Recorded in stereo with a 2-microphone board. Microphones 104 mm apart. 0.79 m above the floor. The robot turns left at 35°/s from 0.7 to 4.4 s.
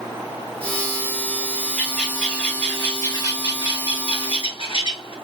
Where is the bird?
170° right, 1.6 m; by 5.1 s 95° left, 1.6 m.